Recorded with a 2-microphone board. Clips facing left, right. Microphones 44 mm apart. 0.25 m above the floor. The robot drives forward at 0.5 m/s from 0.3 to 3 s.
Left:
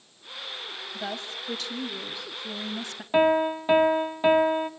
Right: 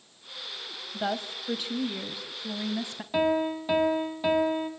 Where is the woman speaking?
20° right (ahead or behind), 1.5 m; by 3.0 s 15° right (ahead or behind), 2 m.